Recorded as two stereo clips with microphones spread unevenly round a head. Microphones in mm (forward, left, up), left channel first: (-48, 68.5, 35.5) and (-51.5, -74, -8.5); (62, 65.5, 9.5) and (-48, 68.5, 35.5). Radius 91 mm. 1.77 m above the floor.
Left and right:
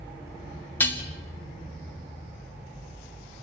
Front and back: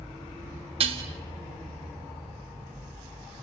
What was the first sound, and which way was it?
Dishes clattering, 160° left.